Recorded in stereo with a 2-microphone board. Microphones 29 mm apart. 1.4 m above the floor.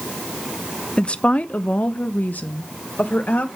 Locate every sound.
1.0 s a woman speaking: 40° left (ahead or behind), 0.6 m; by 3.5 s 80° left, 1.6 m